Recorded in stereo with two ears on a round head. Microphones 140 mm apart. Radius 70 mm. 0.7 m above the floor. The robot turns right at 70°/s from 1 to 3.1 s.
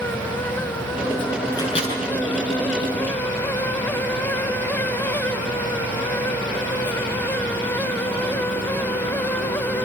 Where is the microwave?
20° left (ahead or behind), 7.5 m; by 1.9 s 50° left (ahead or behind), 7.5 m.